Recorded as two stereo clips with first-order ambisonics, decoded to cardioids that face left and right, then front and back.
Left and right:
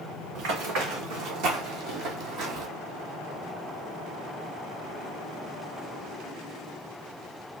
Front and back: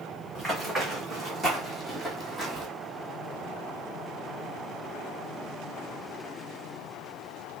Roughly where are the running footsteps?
Right.